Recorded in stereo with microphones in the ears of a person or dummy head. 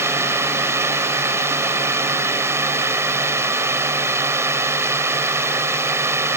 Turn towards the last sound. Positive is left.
turn(degrees=-20)  # may be behind; listen again after turning